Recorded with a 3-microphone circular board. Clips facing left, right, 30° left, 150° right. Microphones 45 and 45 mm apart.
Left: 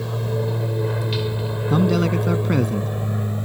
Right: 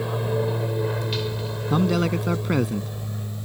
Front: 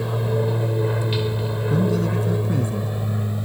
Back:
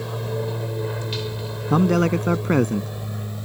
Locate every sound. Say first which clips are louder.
0.0 s an aircraft: right 1 dB, front 4 dB; 35° right; by 3.5 s 95° left
1.7 s a man speaking: left 3 dB, back 4 dB; straight behind